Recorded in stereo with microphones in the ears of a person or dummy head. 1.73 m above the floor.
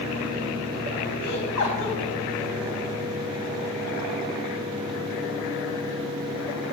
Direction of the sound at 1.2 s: 65° left (ahead or behind).